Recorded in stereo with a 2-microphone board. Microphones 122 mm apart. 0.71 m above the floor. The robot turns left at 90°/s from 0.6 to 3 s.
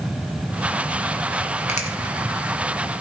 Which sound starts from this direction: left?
A finger snap, at 1.7 s.